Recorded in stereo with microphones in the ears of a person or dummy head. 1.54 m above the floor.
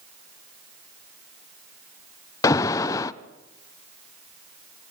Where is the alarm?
20° left (ahead or behind), 0.7 m.